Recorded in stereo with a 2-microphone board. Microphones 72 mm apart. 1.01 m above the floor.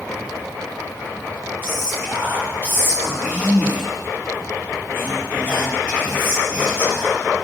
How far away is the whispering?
About 3 m.